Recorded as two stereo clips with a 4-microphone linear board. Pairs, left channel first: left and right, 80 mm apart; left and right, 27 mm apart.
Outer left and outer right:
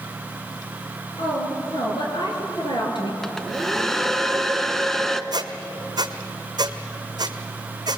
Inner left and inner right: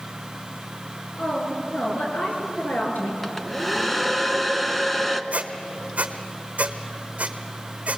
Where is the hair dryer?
5° left (ahead or behind), 0.8 m.